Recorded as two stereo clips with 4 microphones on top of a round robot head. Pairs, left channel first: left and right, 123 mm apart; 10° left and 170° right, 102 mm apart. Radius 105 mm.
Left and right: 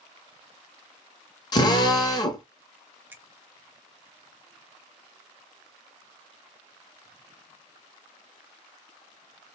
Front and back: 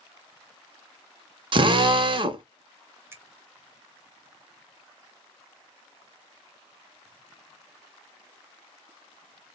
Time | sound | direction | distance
1.5 | a drill | 150° left | 0.6 m
3.1 | a finger snap | 140° right | 0.9 m